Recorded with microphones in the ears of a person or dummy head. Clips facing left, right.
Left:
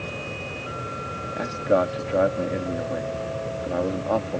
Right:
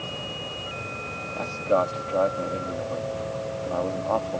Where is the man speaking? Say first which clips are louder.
Left 2 dB; 20° left (ahead or behind).